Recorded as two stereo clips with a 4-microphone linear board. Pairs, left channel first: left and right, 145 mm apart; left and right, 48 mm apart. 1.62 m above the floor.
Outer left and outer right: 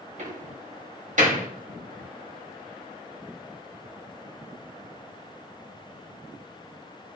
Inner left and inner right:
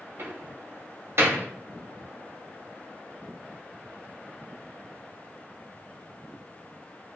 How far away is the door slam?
About 2.0 m.